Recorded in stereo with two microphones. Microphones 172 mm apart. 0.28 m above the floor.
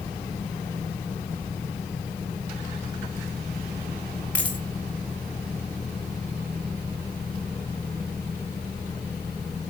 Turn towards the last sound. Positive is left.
turn(degrees=5)  # may be behind; listen again after turning